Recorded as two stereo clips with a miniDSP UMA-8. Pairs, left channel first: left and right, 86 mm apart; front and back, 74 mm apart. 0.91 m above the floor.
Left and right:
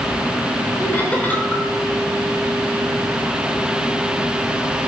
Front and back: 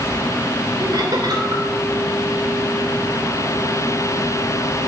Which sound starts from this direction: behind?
Laughter, at 0.8 s.